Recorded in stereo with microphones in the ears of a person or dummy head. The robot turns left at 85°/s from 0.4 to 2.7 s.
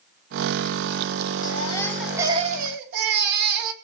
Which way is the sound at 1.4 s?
50° left.